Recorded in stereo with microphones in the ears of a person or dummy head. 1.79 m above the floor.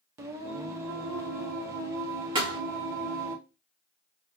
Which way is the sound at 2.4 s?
30° right (ahead or behind).